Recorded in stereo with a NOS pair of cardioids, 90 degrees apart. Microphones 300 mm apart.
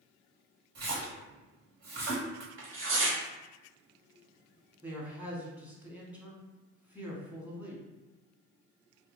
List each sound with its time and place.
0.8 s a splash: 65° right, 1.2 m
2.6 s tearing paper: 45° right, 0.9 m
4.8 s a man speaking: 5° right, 0.9 m